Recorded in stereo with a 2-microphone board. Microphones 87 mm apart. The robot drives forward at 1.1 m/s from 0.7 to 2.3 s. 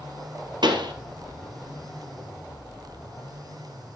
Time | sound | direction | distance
0.6 | a pop | 60° right (ahead or behind) | 2.5 m